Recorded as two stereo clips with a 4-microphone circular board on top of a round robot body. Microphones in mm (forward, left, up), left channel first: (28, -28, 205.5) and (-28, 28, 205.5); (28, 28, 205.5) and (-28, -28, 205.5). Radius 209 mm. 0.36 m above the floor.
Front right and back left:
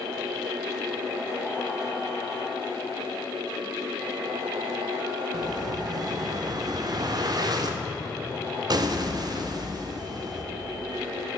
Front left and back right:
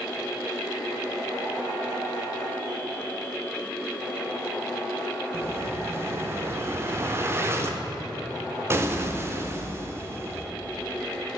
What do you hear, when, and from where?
5.3 s an explosion: 170° left, 0.7 m